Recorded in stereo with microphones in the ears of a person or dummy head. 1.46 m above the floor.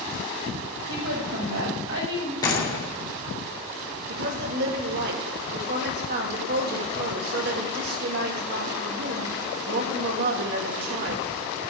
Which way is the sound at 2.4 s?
20° left (ahead or behind).